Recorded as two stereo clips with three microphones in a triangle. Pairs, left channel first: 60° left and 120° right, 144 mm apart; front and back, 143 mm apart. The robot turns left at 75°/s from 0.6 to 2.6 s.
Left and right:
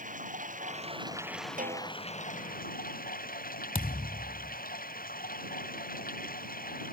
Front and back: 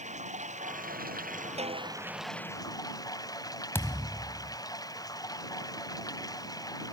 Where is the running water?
145° right; by 6.9 s 65° left.